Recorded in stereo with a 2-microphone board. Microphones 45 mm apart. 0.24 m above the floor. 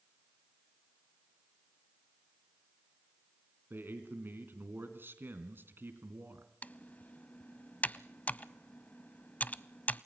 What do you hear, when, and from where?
3.7 s a man speaking: 50° right (ahead or behind), 3 m
6.6 s typing on a keyboard: 35° left (ahead or behind), 0.5 m